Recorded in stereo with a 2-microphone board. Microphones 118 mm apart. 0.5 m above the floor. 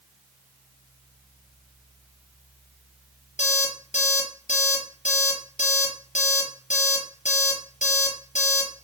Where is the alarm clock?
80° left, 5.5 m.